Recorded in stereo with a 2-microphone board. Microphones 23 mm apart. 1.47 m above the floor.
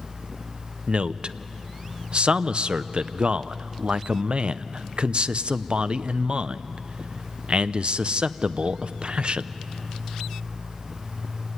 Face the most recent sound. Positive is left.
turn(degrees=-45)  # may be behind; listen again after turning